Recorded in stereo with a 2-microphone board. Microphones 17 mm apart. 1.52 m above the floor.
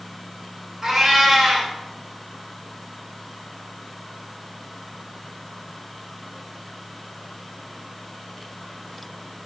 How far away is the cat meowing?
About 2.5 m.